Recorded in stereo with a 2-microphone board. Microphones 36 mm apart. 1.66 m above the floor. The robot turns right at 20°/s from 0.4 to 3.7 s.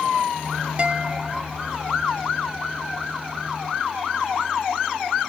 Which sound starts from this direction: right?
A guitar, at 0.8 s.